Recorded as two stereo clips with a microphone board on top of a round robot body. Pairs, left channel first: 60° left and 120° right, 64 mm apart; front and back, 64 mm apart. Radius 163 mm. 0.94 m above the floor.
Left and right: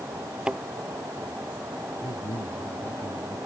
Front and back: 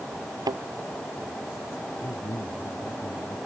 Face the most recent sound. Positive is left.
turn(degrees=45)